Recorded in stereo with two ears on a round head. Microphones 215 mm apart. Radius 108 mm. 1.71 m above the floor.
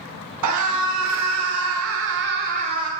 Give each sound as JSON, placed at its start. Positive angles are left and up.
{"t": 0.4, "sound": "a scream", "side_deg": -80, "distance_m": 2.5}